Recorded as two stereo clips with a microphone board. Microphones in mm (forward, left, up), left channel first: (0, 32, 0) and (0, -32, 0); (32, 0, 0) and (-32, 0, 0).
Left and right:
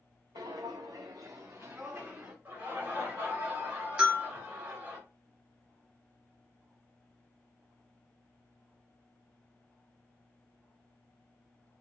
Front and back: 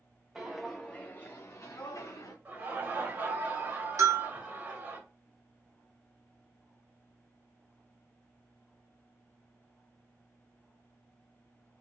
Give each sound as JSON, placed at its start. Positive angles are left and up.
{"t": 0.3, "sound": "footsteps", "azimuth_deg": -100, "distance_m": 0.6}
{"t": 2.5, "sound": "laughter", "azimuth_deg": -135, "distance_m": 1.5}
{"t": 4.0, "sound": "a bell", "azimuth_deg": -160, "distance_m": 1.0}